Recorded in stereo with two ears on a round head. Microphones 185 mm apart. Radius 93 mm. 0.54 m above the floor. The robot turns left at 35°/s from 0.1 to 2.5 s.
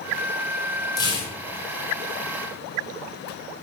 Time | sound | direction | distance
1.0 | tearing paper | 20° left (ahead or behind) | 1.0 m